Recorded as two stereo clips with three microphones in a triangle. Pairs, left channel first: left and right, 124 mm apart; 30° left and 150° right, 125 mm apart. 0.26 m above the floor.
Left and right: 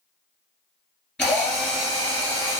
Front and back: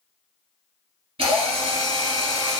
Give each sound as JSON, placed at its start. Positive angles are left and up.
{"t": 1.2, "sound": "a drill", "azimuth_deg": 175, "distance_m": 2.0}